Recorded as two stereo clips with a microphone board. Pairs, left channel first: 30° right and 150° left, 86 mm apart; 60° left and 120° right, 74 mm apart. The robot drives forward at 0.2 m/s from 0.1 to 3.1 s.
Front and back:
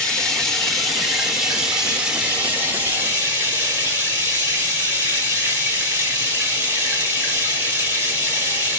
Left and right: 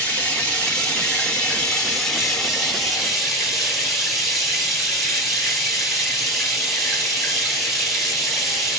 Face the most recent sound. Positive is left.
turn(degrees=155)